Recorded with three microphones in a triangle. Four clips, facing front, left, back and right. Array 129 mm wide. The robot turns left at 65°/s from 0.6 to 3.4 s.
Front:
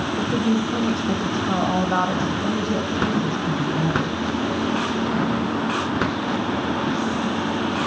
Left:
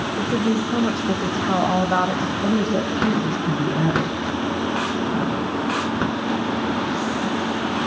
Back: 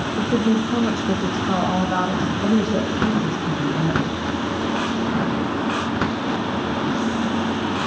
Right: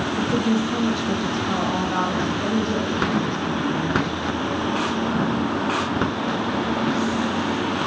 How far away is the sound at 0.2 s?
About 1.0 m.